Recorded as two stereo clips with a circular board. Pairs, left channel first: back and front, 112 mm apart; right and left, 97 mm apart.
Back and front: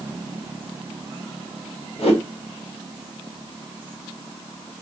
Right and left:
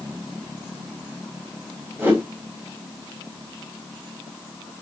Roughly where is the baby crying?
I don't hear a baby crying.